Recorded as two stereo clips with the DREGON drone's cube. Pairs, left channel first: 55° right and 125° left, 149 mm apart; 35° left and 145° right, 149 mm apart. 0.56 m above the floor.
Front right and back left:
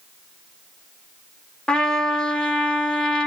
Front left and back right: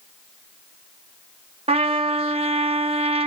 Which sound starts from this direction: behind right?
A trumpet, at 1.7 s.